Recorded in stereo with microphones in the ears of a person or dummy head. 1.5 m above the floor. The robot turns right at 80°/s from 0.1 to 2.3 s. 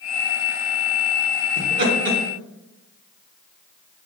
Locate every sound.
1.6 s laughter: 85° right, 1.8 m; by 2.2 s 35° right (ahead or behind), 1.8 m